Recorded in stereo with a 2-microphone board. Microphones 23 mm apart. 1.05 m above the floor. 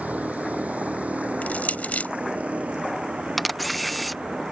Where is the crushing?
80° left.